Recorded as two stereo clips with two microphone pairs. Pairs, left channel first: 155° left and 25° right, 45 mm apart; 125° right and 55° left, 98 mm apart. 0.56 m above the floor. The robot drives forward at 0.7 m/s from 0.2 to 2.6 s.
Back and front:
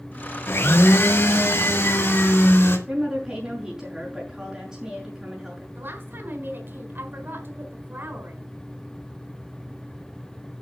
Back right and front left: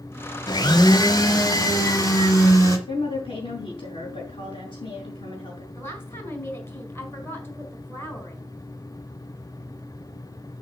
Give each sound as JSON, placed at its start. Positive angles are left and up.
{"t": 0.5, "sound": "a blender", "azimuth_deg": -170, "distance_m": 0.8}
{"t": 2.9, "sound": "a woman speaking", "azimuth_deg": -95, "distance_m": 5.0}
{"t": 5.8, "sound": "a woman speaking", "azimuth_deg": -60, "distance_m": 4.0}